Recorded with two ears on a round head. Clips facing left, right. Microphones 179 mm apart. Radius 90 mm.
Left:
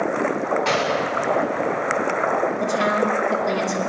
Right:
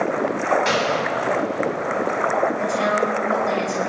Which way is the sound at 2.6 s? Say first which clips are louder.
Even; 25° left (ahead or behind).